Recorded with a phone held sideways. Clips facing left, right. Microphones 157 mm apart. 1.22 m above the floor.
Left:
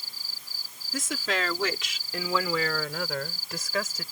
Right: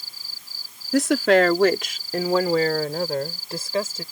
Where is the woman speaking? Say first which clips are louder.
Right 14 dB; 75° right (ahead or behind); by 4.0 s 30° right (ahead or behind).